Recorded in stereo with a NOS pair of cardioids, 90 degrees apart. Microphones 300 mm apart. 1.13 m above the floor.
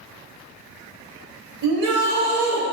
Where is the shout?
70° right, 1.1 m.